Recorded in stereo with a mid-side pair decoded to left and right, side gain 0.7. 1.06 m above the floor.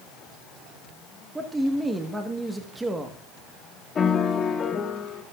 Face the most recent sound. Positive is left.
turn(degrees=30)